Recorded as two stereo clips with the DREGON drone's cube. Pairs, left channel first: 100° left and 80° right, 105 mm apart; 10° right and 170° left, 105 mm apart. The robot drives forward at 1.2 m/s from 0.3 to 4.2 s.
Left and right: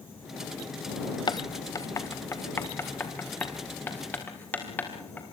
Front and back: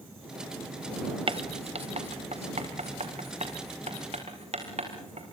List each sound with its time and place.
1.3 s writing: 140° left, 1.0 m; by 5.2 s 170° left, 4.5 m